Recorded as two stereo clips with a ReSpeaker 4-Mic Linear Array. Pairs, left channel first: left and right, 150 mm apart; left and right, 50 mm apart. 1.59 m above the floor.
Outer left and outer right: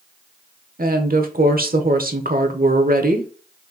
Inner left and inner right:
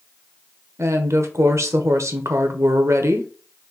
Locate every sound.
0.8 s a woman speaking: 70° right (ahead or behind), 0.9 m